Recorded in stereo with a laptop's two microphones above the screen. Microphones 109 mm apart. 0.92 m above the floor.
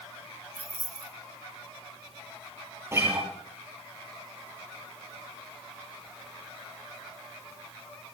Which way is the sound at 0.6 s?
70° left (ahead or behind).